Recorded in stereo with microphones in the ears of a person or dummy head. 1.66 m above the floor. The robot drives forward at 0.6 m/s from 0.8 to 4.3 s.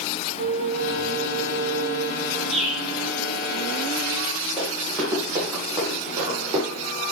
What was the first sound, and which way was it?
A flute, 65° right (ahead or behind).